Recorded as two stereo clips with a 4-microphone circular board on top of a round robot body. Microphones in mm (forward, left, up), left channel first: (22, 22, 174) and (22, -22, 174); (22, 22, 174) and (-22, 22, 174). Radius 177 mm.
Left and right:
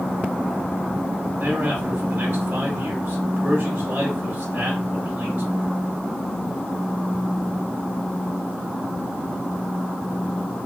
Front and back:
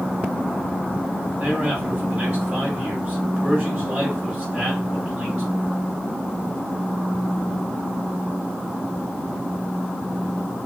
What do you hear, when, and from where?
1.4 s a man speaking: 120° right, 2.5 m